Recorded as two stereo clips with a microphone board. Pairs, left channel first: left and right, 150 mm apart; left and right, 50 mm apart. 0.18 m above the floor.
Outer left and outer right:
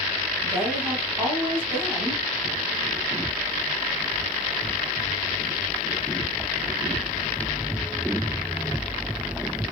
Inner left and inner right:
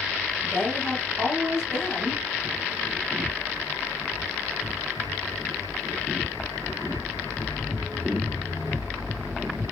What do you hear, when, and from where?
0.4 s a woman speaking: 15° right (ahead or behind), 1.6 m